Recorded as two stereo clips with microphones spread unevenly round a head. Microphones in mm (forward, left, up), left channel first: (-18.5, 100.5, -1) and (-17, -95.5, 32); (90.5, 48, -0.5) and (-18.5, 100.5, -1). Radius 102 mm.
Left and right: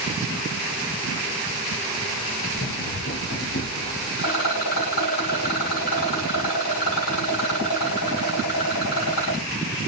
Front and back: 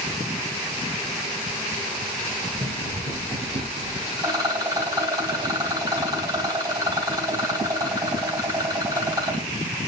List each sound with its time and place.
2.6 s running footsteps: 90° left, 1.6 m; by 4.1 s 125° left, 2 m
4.2 s a rattle: 95° left, 4 m